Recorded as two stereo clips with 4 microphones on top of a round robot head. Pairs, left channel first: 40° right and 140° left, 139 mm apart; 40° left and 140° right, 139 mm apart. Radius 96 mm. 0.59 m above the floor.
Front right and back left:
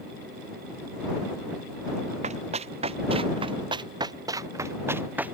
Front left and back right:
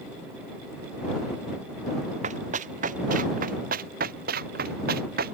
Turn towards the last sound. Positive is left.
turn(degrees=-140)